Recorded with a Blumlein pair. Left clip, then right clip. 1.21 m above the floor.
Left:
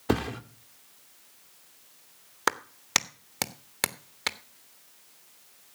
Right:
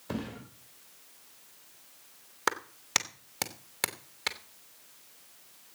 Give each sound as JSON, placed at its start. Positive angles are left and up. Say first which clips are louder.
{"t": 0.1, "sound": "a thud", "louder": "left 10 dB", "azimuth_deg": 45, "distance_m": 1.7}
{"t": 2.5, "sound": "a clap", "louder": "left 3 dB", "azimuth_deg": 15, "distance_m": 1.1}